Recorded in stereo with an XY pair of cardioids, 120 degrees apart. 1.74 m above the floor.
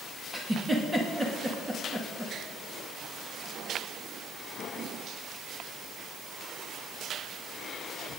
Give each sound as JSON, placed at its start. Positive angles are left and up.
{"t": 0.3, "sound": "a giggle", "azimuth_deg": -10, "distance_m": 2.5}